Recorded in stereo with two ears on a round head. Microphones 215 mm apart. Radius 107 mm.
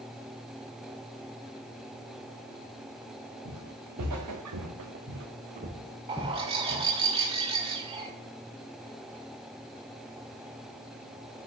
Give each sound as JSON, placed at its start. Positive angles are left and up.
{"t": 3.5, "sound": "footsteps", "side_deg": -80, "distance_m": 3.5}
{"t": 6.1, "sound": "a bird", "side_deg": -25, "distance_m": 2.0}